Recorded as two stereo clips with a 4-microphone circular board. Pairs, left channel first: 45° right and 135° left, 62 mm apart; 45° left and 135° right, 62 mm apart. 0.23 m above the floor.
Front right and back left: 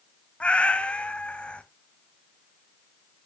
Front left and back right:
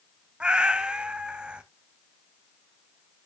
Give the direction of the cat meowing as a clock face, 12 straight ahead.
3 o'clock.